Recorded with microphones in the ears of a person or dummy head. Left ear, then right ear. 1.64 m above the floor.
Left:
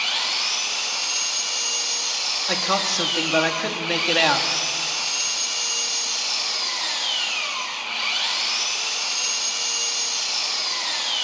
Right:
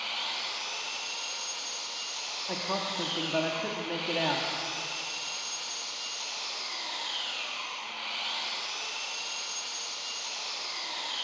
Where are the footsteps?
I don't hear footsteps.